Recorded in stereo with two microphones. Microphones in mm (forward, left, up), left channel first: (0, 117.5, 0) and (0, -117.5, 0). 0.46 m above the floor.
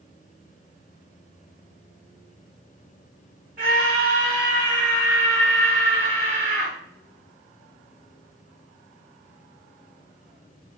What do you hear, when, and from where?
3.6 s a scream: 35° right (ahead or behind), 1.3 m; by 6.7 s 15° left (ahead or behind), 2.5 m